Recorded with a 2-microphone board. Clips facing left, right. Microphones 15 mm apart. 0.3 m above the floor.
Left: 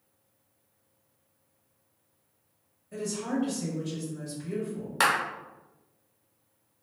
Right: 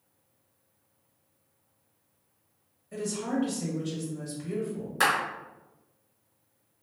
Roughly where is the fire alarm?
I don't hear a fire alarm.